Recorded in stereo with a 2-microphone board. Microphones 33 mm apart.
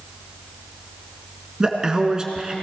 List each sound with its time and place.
1.6 s a man speaking: 25° right (ahead or behind), 1.5 m